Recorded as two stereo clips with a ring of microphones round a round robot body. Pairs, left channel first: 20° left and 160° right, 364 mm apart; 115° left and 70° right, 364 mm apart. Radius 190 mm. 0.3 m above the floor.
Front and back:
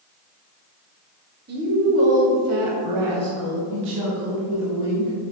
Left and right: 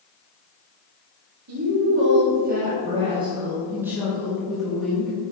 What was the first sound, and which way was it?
A woman speaking, 105° right.